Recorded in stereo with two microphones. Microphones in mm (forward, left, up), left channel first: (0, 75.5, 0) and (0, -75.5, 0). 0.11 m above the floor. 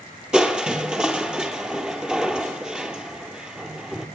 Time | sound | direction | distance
0.3 | crushing | 5° right (ahead or behind) | 0.7 m